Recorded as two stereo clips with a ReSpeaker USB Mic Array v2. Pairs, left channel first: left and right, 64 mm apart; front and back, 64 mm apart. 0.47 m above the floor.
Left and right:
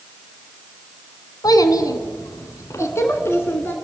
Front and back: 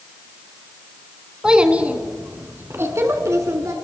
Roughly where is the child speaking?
Left.